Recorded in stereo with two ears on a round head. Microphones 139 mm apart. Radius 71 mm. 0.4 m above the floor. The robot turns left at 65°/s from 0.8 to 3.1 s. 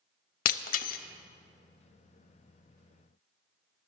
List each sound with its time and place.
0.5 s breaking glass: 60° left (ahead or behind), 0.5 m; by 1.0 s 70° left (ahead or behind), 0.5 m